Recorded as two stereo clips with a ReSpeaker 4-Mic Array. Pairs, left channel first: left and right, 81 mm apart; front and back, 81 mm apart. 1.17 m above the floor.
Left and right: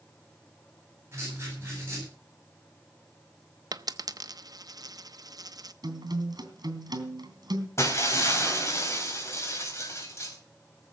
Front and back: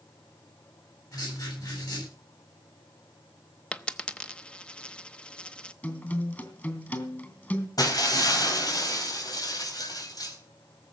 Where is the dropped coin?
75° right, 0.7 m.